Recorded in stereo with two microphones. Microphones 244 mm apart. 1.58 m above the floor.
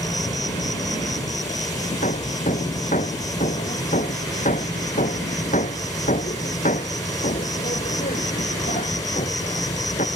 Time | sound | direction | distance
0.0 | an insect | 15° left (ahead or behind) | ?
2.0 | hammering | 30° left (ahead or behind) | ?